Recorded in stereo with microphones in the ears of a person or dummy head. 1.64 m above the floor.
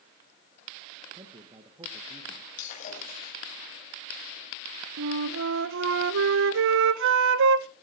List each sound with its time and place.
1.1 s a man speaking: 30° right (ahead or behind), 1.5 m
2.6 s breaking glass: 50° left (ahead or behind), 6 m
5.0 s a flute: 75° right (ahead or behind), 0.8 m